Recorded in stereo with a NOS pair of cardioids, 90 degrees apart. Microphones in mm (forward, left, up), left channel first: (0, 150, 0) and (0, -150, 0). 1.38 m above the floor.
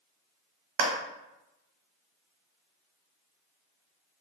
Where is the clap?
65° right, 1.1 m.